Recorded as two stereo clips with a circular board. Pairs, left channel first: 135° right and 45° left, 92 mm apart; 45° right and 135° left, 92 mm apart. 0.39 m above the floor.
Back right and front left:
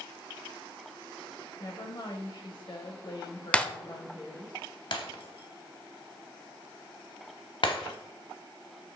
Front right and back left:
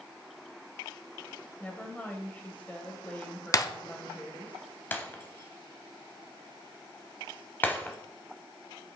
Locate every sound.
1.6 s a woman speaking: 115° right, 1.4 m
3.5 s breaking glass: 65° right, 0.6 m
4.9 s breaking glass: 115° right, 0.9 m